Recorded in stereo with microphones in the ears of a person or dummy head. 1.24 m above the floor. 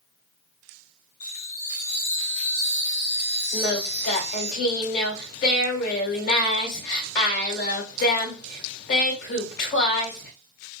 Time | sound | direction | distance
1.2 | a chime | 40° left (ahead or behind) | 3 m
3.5 | singing | 50° left (ahead or behind) | 2.5 m